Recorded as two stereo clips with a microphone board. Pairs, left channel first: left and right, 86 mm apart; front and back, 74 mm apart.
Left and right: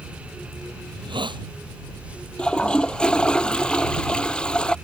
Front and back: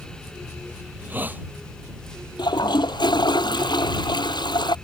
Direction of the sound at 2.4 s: 10° left.